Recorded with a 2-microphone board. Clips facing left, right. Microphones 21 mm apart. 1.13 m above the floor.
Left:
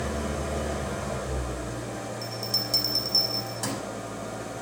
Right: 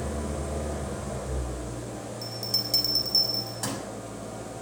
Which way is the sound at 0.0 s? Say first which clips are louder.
Left 2 dB; 55° left (ahead or behind).